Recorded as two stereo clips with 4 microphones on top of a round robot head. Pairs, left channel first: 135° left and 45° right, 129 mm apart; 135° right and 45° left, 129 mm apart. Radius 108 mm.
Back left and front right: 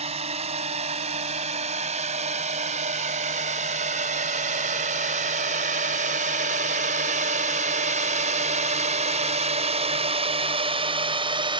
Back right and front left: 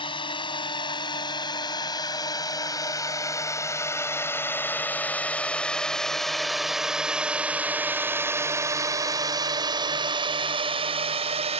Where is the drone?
85° right; by 11.6 s 5° left.